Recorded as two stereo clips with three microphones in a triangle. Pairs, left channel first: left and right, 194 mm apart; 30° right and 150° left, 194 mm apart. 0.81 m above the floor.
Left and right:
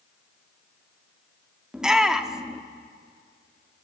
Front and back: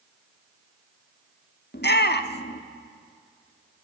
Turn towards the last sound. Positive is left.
turn(degrees=-5)